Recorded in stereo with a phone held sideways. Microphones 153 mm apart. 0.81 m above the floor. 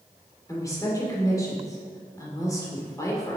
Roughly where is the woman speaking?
Left.